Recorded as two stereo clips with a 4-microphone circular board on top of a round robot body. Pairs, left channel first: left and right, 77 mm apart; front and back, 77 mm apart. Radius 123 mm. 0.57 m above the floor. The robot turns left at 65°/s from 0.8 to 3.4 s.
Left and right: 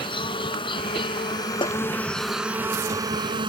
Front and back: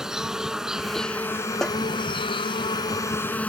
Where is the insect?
95° left; by 3.5 s 70° right.